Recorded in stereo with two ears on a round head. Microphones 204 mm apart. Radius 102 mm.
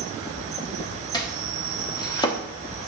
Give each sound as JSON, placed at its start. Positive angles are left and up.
{"t": 0.0, "sound": "an insect", "side_deg": -30, "distance_m": 1.9}
{"t": 1.1, "sound": "chopping", "side_deg": 20, "distance_m": 1.2}